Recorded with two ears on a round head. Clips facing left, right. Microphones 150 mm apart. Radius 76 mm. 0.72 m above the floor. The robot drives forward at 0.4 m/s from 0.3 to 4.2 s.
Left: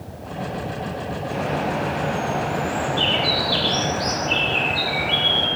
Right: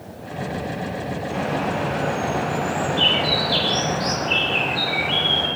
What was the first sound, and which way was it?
A bird, 5° left (ahead or behind).